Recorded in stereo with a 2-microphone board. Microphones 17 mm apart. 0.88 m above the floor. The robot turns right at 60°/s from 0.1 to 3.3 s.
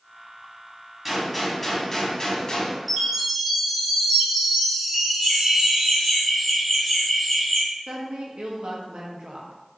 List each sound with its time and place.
1.1 s a gunshot: 25° right, 0.9 m; by 2.8 s 80° left, 0.9 m
2.9 s a chime: centre (ahead or behind), 1.6 m; by 6.2 s 25° right (ahead or behind), 1.6 m
5.2 s laughter: 25° left (ahead or behind), 1.5 m
7.9 s a woman speaking: 50° right (ahead or behind), 0.6 m